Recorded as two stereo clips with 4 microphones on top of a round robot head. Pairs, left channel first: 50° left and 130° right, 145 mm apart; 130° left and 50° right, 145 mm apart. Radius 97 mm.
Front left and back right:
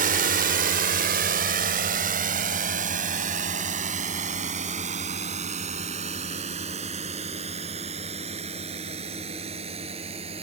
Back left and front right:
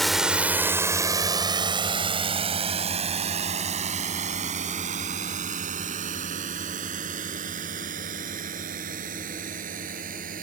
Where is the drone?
140° right; by 10.4 s 80° right.